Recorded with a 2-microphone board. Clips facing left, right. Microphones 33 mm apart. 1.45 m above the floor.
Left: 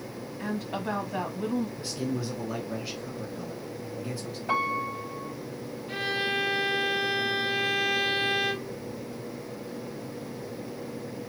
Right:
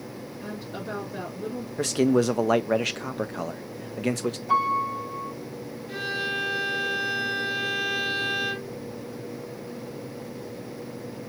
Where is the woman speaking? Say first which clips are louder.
Left 5 dB; 85° left, 2 m.